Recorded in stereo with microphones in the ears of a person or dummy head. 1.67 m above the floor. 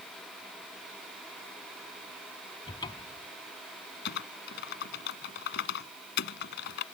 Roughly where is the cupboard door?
Left.